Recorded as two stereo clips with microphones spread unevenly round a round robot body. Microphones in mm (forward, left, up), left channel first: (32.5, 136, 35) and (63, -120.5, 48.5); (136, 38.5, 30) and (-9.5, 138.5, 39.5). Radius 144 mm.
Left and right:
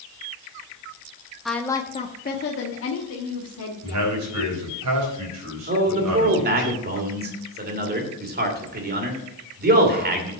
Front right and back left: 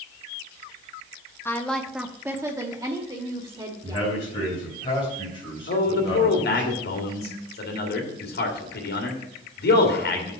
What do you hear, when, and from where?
1.4 s a woman speaking: 10° left, 0.8 m; by 4.1 s 85° left, 2 m
3.8 s a man speaking: 105° right, 4 m
5.7 s a man speaking: 30° right, 2.5 m